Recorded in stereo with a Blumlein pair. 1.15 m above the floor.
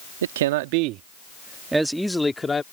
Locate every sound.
0.2 s a man speaking: 60° right; by 2.6 s 15° left